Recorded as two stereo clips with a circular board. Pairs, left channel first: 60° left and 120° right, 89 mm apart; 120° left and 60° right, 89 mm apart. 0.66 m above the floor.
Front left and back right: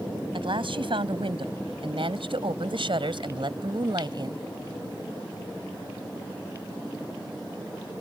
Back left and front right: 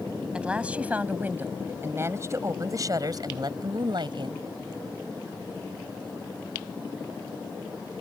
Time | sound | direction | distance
0.3 | a woman speaking | 140° right | ?